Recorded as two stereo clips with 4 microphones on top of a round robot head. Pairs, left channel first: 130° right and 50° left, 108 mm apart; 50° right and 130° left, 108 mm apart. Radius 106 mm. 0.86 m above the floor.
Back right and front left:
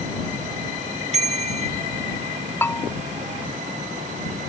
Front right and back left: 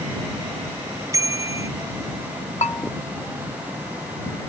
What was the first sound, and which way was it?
A bicycle bell, 70° left.